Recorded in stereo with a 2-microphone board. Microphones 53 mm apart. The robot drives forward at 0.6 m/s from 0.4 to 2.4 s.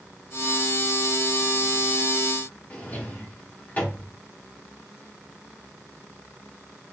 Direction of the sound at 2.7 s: 30° left (ahead or behind).